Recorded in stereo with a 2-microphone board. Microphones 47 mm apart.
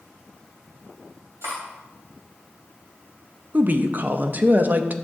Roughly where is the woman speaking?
Right.